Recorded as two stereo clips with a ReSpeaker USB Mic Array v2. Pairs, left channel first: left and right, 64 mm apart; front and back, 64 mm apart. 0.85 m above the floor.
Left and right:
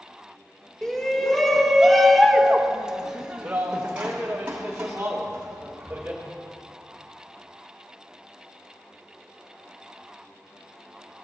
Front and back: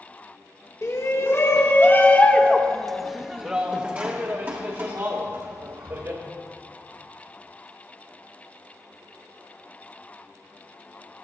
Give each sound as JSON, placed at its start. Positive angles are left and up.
{"t": 0.8, "sound": "a shout", "azimuth_deg": 10, "distance_m": 1.4}